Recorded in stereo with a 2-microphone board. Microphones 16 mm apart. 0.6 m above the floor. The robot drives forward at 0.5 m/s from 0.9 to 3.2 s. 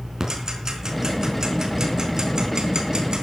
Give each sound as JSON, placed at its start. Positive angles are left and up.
{"t": 0.2, "sound": "ticking", "side_deg": -35, "distance_m": 4.0}